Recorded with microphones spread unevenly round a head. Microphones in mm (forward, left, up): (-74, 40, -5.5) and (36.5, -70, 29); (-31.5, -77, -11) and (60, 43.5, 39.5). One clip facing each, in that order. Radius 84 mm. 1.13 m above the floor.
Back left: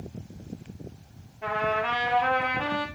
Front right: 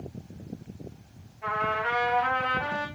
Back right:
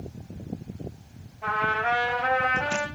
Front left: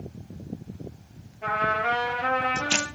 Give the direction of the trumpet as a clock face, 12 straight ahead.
9 o'clock.